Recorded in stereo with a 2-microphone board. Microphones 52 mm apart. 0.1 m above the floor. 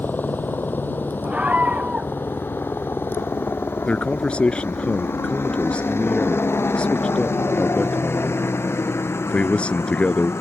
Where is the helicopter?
40° left (ahead or behind); by 10.4 s 60° left (ahead or behind).